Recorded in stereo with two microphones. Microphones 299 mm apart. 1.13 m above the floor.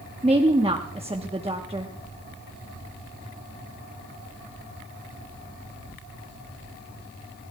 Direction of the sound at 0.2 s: 20° right (ahead or behind).